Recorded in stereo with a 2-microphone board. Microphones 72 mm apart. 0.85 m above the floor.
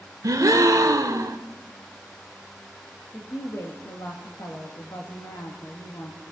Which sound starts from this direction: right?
A gasp, at 0.2 s.